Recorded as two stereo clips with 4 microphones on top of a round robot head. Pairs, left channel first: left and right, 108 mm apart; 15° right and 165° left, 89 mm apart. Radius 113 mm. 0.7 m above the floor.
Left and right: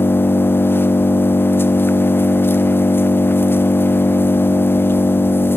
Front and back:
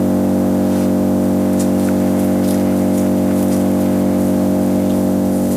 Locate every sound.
0.0 s an engine running: 80° left, 0.8 m